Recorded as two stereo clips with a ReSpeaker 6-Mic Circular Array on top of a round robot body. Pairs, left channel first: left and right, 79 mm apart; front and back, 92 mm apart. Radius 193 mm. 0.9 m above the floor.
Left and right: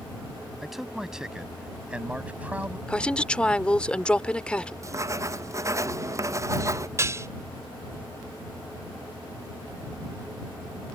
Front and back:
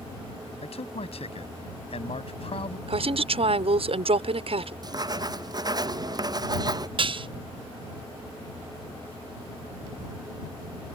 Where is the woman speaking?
165° left.